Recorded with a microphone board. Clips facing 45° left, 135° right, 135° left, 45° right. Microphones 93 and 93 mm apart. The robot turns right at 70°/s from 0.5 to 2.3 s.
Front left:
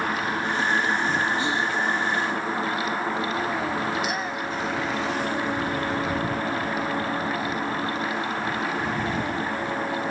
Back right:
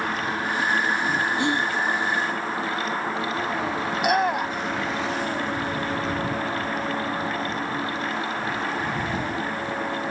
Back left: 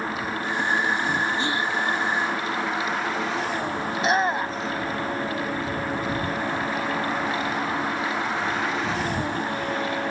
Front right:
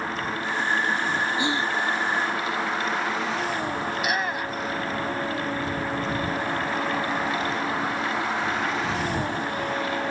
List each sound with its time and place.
1.4 s whispering: 120° right; by 1.7 s 95° right
3.9 s a shout: 165° right